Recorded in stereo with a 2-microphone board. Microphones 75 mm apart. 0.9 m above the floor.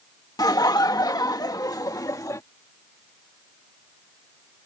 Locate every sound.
0.4 s laughter: 55° left (ahead or behind); by 2.4 s 45° left (ahead or behind)